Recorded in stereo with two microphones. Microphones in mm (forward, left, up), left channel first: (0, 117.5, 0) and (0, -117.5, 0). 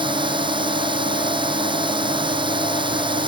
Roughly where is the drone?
Centre.